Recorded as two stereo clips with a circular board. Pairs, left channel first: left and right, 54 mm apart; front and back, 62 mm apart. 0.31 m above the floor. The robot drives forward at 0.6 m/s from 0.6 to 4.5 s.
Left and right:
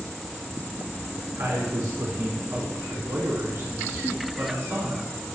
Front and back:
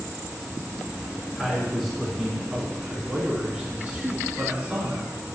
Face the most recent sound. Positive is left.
turn(degrees=-115)